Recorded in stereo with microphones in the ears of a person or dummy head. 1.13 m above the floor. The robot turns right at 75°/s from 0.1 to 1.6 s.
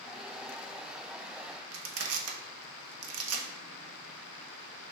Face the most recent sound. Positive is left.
turn(degrees=-80)